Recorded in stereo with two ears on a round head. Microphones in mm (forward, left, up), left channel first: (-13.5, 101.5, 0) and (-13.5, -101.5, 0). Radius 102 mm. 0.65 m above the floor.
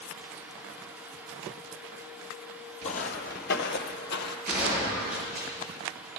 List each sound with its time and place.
2.8 s footsteps: 35° left (ahead or behind), 1.0 m; by 4.4 s 45° left (ahead or behind), 1.1 m
4.5 s a gunshot: 35° right (ahead or behind), 5.5 m